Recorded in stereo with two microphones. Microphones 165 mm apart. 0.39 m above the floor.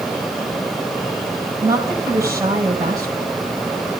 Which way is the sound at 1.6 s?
20° right (ahead or behind).